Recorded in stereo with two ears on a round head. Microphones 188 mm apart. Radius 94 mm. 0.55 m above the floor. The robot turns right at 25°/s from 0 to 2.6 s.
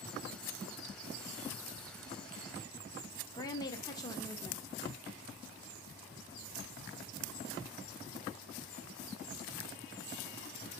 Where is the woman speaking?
20° left (ahead or behind), 0.7 m.